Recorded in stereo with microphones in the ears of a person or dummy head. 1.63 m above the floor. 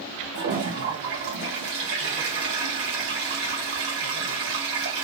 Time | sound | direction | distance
0.3 | a toilet flushing | 65° right (ahead or behind) | 1.1 m